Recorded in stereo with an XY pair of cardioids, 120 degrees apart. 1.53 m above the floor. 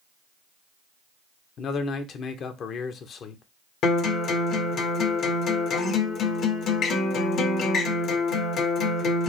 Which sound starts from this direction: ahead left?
A man speaking, at 1.6 s.